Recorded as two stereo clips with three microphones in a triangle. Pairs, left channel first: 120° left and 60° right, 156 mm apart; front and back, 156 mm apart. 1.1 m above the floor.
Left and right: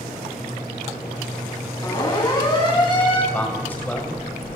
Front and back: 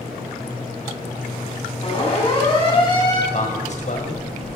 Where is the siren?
55° left, 9 m; by 3.2 s 65° left, 8.5 m.